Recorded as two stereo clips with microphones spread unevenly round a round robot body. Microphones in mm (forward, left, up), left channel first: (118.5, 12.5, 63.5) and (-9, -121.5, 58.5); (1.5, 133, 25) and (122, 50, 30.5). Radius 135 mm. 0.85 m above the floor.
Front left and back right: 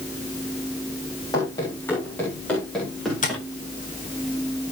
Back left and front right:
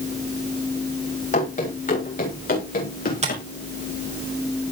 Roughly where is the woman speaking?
No woman speaking in this recording.